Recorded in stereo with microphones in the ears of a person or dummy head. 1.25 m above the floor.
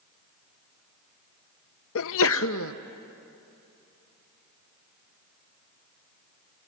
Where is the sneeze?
80° left, 0.7 m.